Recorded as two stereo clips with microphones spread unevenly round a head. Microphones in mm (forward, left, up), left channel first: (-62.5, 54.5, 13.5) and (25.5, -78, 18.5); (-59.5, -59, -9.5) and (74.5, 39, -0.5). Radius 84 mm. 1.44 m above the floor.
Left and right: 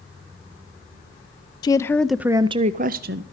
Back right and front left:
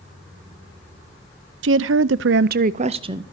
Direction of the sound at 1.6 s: 60° left.